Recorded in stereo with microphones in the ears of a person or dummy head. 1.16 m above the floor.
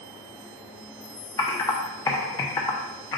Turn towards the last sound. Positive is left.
turn(degrees=20)  # may be behind; listen again after turning